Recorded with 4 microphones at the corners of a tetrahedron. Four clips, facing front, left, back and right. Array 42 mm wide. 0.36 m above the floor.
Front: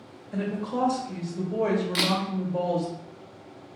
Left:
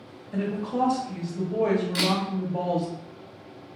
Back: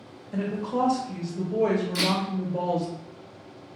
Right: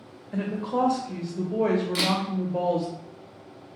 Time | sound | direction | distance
0.3 | a woman speaking | 75° right | 1.1 m
1.9 | a camera shutter | straight ahead | 1.1 m